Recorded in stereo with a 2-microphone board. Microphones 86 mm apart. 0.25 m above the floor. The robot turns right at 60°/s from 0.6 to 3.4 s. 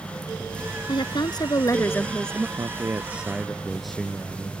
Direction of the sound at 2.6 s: 50° right.